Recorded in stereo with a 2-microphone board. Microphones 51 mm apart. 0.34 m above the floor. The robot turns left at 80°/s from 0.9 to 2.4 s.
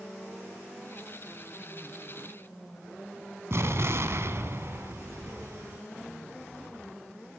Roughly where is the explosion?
Right.